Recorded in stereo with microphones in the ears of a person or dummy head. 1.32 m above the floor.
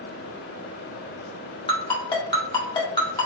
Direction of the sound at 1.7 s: 25° left (ahead or behind).